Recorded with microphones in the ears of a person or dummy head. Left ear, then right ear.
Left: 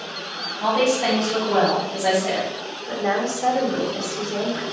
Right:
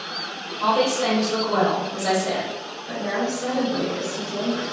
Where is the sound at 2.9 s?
60° left (ahead or behind), 1.1 m.